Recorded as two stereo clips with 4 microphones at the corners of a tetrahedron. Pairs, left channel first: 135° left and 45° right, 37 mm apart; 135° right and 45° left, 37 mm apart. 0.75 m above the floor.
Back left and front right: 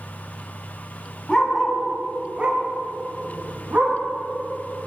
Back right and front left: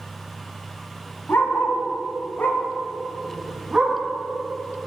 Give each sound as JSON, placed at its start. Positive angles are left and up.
{"t": 1.3, "sound": "a dog barking", "azimuth_deg": -150, "distance_m": 1.7}